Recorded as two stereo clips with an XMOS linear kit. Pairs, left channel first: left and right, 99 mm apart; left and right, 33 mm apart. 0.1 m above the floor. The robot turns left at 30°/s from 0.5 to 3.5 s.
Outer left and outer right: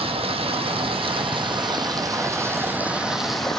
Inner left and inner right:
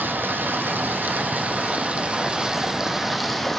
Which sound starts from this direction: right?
Running water, at 0.0 s.